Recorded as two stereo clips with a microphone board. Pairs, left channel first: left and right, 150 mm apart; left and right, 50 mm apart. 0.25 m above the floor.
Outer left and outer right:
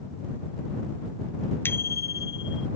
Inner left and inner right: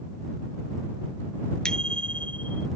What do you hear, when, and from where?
1.6 s a bicycle bell: 15° left (ahead or behind); by 2.7 s 30° left (ahead or behind)